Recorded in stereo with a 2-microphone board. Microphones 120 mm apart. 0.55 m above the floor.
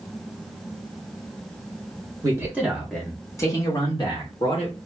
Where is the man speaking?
25° right (ahead or behind), 0.7 m; by 4.8 s 50° left (ahead or behind), 1.5 m.